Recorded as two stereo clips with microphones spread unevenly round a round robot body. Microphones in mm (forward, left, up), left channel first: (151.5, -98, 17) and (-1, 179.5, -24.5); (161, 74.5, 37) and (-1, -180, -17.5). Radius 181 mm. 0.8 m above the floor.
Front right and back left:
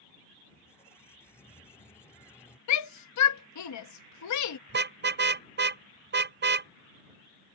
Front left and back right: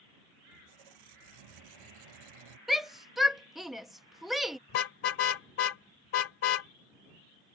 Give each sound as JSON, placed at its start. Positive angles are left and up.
{"t": 0.5, "sound": "a squeak", "azimuth_deg": -140}
{"t": 2.7, "sound": "a shout", "azimuth_deg": -45}
{"t": 4.7, "sound": "a car horn", "azimuth_deg": 60}